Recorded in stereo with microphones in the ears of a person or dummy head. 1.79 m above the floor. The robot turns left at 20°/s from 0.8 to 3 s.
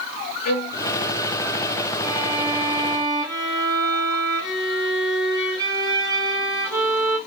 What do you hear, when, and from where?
0.5 s a violin: 45° left (ahead or behind), 0.6 m
2.0 s a violin: 15° right (ahead or behind), 1.1 m; by 7.2 s 30° right (ahead or behind), 1.1 m